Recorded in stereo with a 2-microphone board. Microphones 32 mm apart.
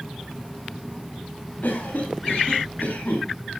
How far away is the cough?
About 9 m.